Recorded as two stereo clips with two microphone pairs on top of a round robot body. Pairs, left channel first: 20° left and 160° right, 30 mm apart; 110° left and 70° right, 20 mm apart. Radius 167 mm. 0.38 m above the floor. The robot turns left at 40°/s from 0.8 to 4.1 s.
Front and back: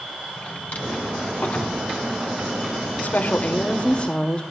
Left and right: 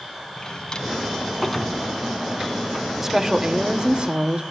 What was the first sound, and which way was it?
A drawer, 55° left.